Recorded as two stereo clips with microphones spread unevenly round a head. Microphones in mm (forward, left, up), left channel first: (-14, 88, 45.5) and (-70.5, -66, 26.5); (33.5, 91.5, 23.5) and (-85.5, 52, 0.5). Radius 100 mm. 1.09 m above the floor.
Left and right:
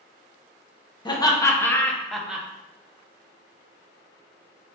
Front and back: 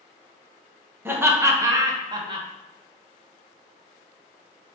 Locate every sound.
1.1 s laughter: 135° left, 1.4 m; by 2.5 s 175° left, 1.1 m